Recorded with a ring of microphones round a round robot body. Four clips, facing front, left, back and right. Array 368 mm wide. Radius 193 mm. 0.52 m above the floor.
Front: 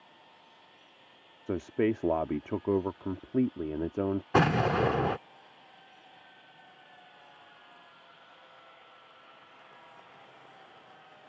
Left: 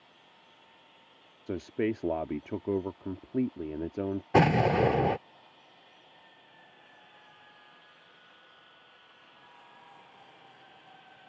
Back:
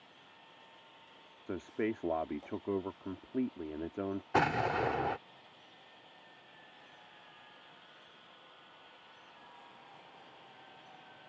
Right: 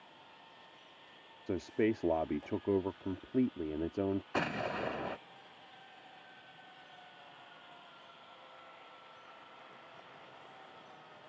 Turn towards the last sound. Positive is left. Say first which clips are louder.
# left 13 dB, front 5 dB
turn(degrees=60)